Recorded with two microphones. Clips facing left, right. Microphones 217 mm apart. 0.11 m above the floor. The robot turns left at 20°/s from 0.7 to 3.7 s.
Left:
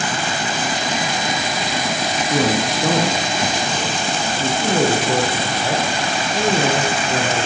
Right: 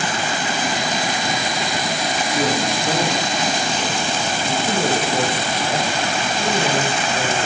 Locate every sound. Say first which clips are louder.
2.3 s a man speaking: left 3 dB; 80° left, 7.5 m; by 4.5 s 65° left (ahead or behind), 7.5 m
4.6 s a man speaking: left 4 dB; 70° left (ahead or behind), 7.5 m